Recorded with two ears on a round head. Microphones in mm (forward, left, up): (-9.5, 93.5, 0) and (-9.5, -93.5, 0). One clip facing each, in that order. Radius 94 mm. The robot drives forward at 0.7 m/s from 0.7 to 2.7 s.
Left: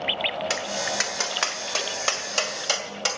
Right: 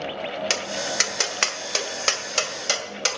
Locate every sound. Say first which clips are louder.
0.5 s tapping: even; 40° right (ahead or behind), 1.3 m; by 3.2 s 25° right (ahead or behind), 2 m